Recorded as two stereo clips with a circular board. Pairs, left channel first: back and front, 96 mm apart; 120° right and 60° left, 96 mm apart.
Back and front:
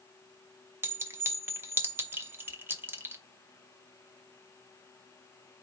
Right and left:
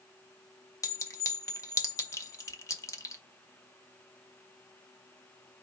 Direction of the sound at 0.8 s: 65° right.